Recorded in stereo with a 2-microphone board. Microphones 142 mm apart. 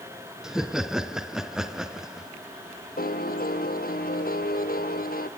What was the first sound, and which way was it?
Laughter, 5° right (ahead or behind).